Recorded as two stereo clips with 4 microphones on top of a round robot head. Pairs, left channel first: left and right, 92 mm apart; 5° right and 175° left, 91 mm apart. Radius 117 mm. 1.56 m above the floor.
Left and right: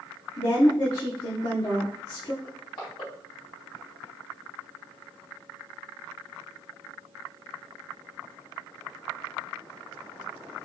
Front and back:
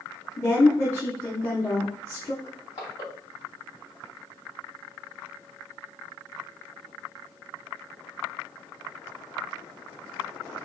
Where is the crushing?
35° left, 1.8 m.